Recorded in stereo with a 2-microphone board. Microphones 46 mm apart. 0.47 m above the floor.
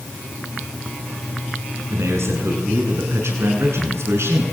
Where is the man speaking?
75° right (ahead or behind), 6.5 m; by 4.5 s 70° right (ahead or behind), 7.5 m.